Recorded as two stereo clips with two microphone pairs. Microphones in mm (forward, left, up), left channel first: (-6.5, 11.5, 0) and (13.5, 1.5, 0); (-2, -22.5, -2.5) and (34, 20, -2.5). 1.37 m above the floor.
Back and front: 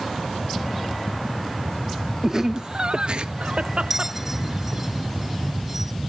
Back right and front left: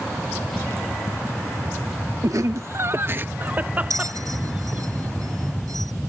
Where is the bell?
45° left.